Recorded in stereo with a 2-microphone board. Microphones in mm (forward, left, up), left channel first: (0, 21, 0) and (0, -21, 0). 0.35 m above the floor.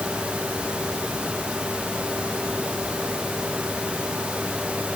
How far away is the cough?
I don't hear a cough.